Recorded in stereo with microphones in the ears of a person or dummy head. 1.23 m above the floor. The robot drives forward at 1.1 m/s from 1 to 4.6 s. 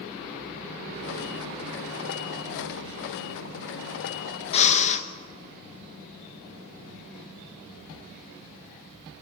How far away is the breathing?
About 1.2 m.